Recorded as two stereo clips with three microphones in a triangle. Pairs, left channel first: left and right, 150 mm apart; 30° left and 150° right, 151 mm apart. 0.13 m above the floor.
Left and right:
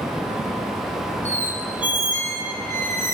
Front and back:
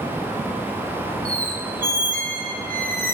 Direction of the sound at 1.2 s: 125° right.